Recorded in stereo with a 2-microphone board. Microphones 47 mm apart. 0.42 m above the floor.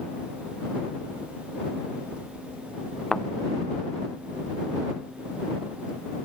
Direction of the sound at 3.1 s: 10° left (ahead or behind).